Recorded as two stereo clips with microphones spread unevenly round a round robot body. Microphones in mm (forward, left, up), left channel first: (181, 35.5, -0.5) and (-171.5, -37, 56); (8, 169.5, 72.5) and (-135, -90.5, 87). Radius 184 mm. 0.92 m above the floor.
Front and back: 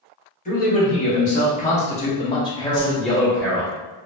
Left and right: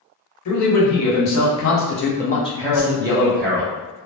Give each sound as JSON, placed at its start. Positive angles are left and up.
{"t": 0.5, "sound": "a man speaking", "azimuth_deg": 75, "distance_m": 1.4}
{"t": 2.7, "sound": "a whoosh", "azimuth_deg": 70, "distance_m": 1.5}